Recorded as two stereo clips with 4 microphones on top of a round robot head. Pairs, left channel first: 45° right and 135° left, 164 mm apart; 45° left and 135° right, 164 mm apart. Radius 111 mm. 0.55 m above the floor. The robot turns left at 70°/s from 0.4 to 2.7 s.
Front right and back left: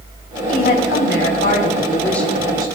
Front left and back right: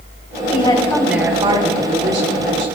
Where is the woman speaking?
5° right, 5 m; by 2.7 s 160° right, 5 m.